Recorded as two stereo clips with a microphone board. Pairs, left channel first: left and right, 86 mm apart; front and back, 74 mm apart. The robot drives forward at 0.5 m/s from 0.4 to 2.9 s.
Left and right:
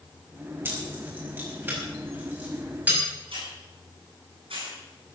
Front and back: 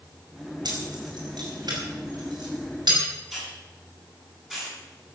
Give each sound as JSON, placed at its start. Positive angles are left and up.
{"t": 0.7, "sound": "keys jangling", "azimuth_deg": -155, "distance_m": 5.0}
{"t": 3.3, "sound": "a hiss", "azimuth_deg": -95, "distance_m": 8.5}